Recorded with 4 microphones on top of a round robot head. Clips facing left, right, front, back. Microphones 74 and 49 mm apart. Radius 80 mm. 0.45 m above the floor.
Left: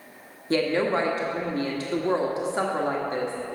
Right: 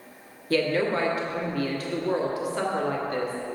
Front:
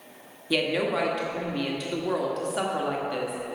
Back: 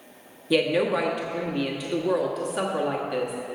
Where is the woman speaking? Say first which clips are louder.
Left 1 dB, back 3 dB; 100° left, 1.5 m.